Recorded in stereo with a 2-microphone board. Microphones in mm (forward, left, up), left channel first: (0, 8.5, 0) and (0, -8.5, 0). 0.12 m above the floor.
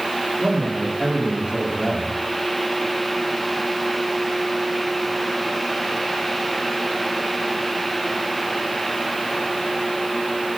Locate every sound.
0.4 s a man speaking: 40° right (ahead or behind), 6.5 m